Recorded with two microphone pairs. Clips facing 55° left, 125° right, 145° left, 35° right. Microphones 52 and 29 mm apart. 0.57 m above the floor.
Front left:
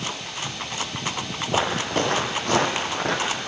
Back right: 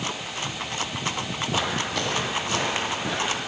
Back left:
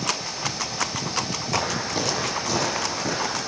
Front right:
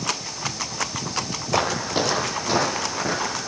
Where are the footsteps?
5° right, 1.1 m; by 3.5 s 35° left, 2.5 m.